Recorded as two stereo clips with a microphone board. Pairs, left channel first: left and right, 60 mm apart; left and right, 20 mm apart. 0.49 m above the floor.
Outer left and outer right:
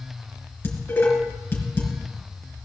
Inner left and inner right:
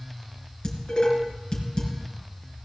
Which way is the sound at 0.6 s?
35° left (ahead or behind).